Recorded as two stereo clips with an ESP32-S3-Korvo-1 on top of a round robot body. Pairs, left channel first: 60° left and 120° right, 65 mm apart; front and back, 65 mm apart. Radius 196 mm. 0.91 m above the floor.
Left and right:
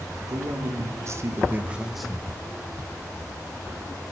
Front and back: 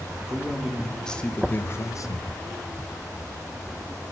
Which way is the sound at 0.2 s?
100° right.